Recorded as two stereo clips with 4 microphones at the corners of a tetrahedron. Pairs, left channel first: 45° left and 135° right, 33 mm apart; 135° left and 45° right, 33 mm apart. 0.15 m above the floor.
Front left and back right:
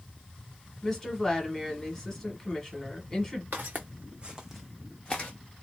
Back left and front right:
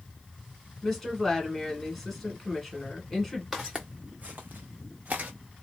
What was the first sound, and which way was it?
A woman speaking, 65° left.